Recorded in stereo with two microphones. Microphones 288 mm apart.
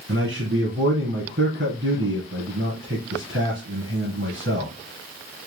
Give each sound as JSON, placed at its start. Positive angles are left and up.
{"t": 0.1, "sound": "a man speaking", "side_deg": -45, "distance_m": 2.5}